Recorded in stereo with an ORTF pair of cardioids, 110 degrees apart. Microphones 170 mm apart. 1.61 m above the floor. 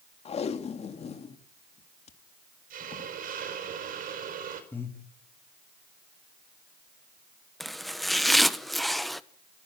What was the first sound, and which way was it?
Tape being pulled, 40° left.